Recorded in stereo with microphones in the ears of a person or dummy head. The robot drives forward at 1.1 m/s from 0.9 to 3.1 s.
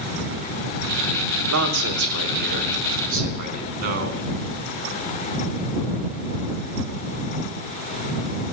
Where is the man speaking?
70° right (ahead or behind), 2.5 m; by 4.2 s 45° right (ahead or behind), 3.5 m.